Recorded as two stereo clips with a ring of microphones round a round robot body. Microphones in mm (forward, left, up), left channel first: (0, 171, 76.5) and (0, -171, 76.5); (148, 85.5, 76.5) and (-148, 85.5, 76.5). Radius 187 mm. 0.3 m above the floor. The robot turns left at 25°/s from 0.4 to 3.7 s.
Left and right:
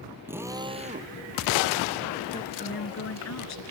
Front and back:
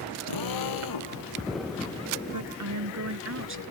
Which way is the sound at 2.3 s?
160° left.